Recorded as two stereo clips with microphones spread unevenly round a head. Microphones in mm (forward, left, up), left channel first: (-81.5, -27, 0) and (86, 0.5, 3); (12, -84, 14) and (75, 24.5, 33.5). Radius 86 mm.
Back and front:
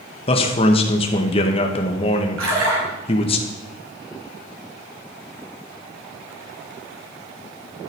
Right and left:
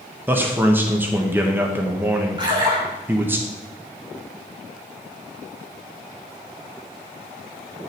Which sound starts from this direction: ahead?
A splash, at 2.4 s.